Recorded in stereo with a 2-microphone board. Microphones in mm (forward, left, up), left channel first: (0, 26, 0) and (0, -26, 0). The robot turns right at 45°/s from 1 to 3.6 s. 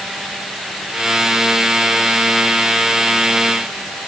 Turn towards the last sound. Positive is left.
No sound to turn to.